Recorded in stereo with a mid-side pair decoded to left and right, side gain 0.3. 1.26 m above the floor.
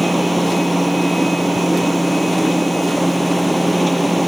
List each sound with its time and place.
0.0 s a machine running: 15° right